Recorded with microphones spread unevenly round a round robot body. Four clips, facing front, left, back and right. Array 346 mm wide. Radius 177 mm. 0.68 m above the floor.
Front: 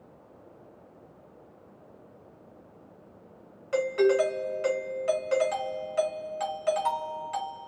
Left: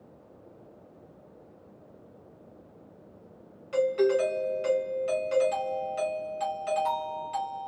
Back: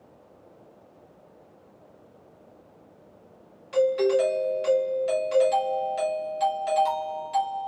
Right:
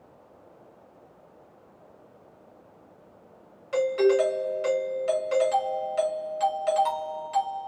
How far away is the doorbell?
About 1.3 m.